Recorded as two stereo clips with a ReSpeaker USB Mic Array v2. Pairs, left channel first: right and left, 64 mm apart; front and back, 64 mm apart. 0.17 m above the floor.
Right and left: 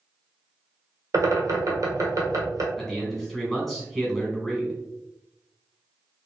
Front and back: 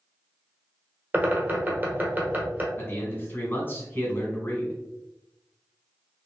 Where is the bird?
120° left, 1.0 m.